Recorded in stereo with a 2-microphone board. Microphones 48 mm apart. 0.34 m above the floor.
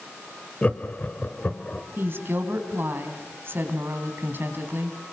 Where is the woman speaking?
50° right (ahead or behind), 3 m.